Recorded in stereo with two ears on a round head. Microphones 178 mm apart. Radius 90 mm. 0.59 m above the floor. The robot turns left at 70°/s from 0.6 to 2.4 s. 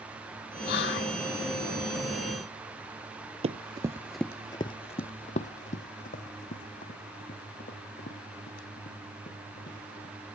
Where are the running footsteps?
30° right (ahead or behind), 0.7 m; by 10.1 s 40° left (ahead or behind), 5 m.